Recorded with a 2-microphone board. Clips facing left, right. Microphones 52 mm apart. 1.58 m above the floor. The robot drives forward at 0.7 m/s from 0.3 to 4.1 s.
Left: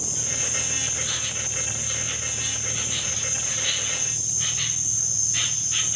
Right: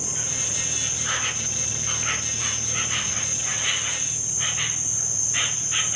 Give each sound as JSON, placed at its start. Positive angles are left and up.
{"t": 0.0, "sound": "an insect", "side_deg": -30}